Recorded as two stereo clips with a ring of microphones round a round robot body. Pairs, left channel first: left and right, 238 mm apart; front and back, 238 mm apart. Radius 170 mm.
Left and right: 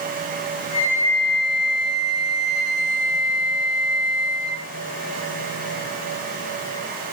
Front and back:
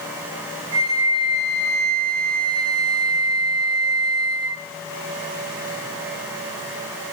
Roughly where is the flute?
Behind.